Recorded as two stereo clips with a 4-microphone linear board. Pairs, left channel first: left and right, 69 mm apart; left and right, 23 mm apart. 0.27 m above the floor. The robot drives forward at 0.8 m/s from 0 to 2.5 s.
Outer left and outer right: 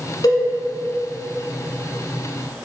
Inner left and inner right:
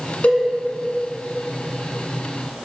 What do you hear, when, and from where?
0.2 s a cowbell: 70° left (ahead or behind), 1.0 m; by 0.4 s 65° left (ahead or behind), 1.0 m